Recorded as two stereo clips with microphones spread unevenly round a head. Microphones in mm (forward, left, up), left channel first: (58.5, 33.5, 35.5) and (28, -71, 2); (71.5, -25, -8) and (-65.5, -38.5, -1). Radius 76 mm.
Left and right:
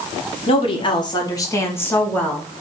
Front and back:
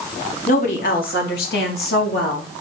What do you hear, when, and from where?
0.5 s a woman speaking: 50° left, 1.4 m; by 2.5 s 5° right, 1.6 m